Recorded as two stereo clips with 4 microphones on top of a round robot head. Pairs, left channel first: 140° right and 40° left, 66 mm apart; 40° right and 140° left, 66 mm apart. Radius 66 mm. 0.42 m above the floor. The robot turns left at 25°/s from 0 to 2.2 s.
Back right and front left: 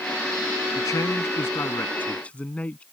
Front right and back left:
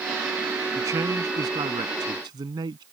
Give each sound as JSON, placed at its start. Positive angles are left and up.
{"t": 0.8, "sound": "a man speaking", "azimuth_deg": -175}